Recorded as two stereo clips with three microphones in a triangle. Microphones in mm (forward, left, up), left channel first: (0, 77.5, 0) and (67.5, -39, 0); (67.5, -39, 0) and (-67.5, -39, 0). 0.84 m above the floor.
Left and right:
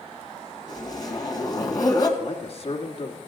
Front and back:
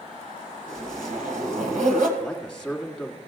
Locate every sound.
0.7 s a zipper: straight behind, 2 m
2.2 s a man speaking: 85° left, 1.6 m